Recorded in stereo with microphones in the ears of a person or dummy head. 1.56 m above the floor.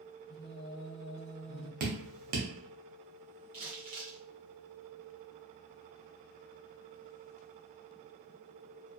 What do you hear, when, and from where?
0.3 s singing: 30° left (ahead or behind), 0.7 m
1.8 s dripping: 45° right (ahead or behind), 0.7 m
3.5 s crumpling: 25° right (ahead or behind), 1.0 m